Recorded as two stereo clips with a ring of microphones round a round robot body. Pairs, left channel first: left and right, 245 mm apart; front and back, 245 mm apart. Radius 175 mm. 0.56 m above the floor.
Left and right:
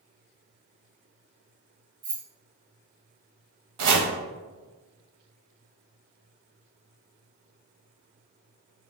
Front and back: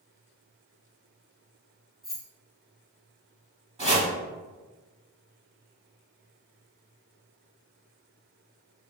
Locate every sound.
2.0 s keys jangling: 90° right, 1.1 m
3.8 s chopping: 105° right, 0.6 m